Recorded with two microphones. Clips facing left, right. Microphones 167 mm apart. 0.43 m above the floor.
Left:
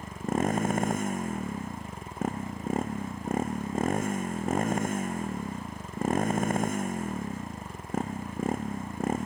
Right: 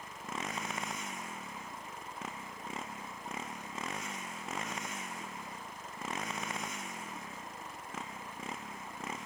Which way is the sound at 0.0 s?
50° left (ahead or behind).